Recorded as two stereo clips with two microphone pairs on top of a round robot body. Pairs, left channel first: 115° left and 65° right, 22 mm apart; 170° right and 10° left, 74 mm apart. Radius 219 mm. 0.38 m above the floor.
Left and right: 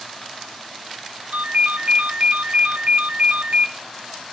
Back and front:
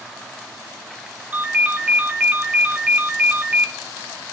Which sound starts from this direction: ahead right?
A ringtone, at 1.3 s.